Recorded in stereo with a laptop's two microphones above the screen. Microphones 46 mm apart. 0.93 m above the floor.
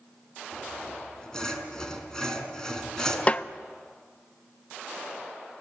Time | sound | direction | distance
0.5 | sawing | 15° left (ahead or behind) | 5 m
3.3 | a snare drum | 30° left (ahead or behind) | 0.8 m